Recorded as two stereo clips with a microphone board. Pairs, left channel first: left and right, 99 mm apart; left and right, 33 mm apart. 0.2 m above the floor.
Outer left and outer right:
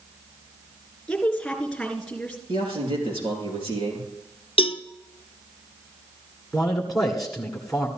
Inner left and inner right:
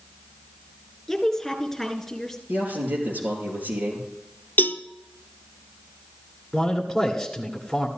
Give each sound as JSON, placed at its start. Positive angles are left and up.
{"t": 1.1, "sound": "a woman speaking", "side_deg": 5, "distance_m": 3.0}
{"t": 2.5, "sound": "a man speaking", "side_deg": -70, "distance_m": 4.5}
{"t": 4.6, "sound": "a cowbell", "side_deg": 70, "distance_m": 0.6}
{"t": 6.5, "sound": "a man speaking", "side_deg": 0, "distance_m": 1.8}